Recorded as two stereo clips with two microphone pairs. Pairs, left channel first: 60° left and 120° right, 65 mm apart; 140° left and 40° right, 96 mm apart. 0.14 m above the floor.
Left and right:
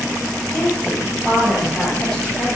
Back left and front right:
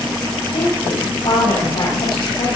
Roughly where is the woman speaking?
Behind left.